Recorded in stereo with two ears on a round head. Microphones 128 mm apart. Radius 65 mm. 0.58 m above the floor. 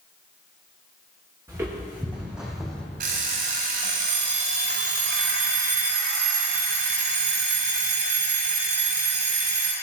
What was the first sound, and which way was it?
Footsteps, 20° right (ahead or behind).